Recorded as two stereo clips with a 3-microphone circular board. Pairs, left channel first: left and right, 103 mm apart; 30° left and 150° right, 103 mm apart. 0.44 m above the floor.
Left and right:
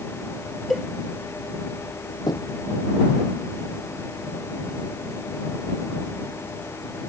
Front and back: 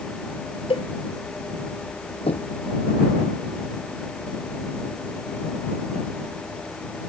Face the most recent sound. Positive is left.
turn(degrees=45)